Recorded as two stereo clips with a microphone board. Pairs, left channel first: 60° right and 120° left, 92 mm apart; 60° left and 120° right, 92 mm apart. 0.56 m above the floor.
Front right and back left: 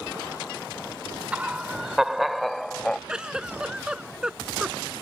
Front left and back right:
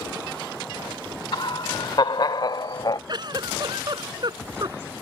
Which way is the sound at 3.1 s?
160° right.